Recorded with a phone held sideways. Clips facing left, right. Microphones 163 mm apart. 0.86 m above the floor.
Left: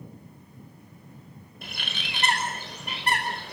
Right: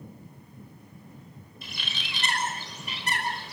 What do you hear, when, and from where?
1.6 s a bird: 60° left (ahead or behind), 4.5 m